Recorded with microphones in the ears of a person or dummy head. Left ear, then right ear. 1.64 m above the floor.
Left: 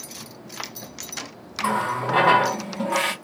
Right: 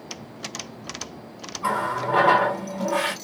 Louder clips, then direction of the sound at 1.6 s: Left 1 dB; 25° left (ahead or behind).